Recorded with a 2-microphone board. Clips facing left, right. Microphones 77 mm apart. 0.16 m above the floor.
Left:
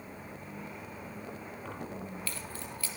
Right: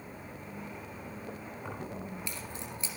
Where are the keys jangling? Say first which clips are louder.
Right 1 dB; 15° right (ahead or behind), 3 m; by 2.9 s 25° right (ahead or behind), 4 m.